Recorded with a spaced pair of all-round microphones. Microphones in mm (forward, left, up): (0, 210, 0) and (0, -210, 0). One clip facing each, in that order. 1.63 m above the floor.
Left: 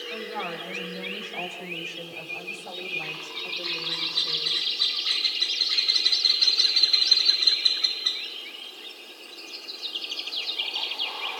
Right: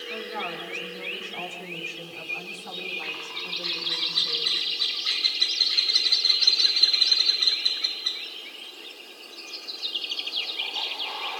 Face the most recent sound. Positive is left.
turn(degrees=-10)  # may be behind; listen again after turning